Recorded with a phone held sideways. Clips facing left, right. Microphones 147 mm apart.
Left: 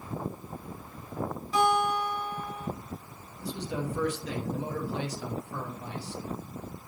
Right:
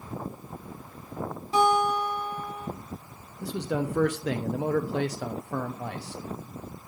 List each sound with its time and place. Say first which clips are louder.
1.5 s a guitar: right 3 dB; 30° right (ahead or behind), 2.5 m
3.4 s a man speaking: right 5 dB; 70° right (ahead or behind), 0.6 m